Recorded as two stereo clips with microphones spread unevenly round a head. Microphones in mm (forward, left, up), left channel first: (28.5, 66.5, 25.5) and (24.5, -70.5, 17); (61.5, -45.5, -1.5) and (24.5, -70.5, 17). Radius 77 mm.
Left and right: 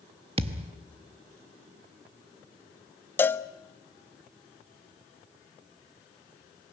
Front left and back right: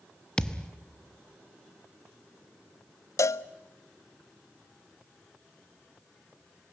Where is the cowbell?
15° left, 0.5 m.